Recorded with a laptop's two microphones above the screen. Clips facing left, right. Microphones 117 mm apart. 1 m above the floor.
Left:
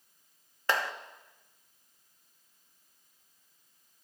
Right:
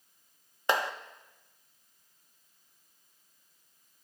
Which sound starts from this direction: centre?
A clap, at 0.7 s.